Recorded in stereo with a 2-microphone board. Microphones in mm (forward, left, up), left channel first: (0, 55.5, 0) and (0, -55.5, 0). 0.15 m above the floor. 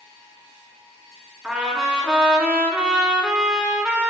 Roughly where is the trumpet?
Centre.